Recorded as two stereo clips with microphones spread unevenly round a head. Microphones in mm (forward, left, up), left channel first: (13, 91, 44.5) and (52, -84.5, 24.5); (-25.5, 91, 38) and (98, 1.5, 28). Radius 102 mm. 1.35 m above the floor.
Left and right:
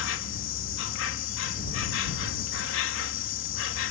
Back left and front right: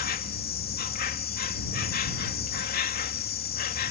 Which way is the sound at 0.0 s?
125° left.